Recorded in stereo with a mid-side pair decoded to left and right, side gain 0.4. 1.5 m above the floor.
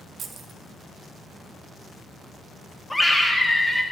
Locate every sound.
0.2 s keys jangling: 60° right, 1.0 m
2.9 s a scream: 10° left, 2.0 m